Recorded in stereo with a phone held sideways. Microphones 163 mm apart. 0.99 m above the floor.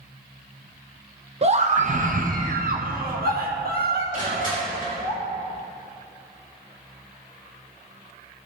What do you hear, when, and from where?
1.4 s a scream: 40° right (ahead or behind), 0.9 m; by 5.1 s 75° right (ahead or behind), 2.5 m
4.1 s crushing: 55° right (ahead or behind), 5 m